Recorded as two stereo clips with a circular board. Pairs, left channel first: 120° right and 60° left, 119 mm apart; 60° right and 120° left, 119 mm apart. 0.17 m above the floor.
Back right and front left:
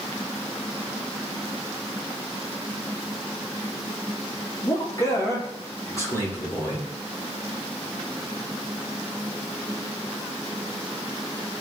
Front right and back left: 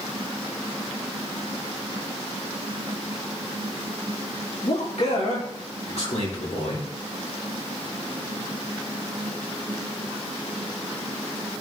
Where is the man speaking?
65° right, 3.5 m; by 6.8 s 55° right, 5.5 m.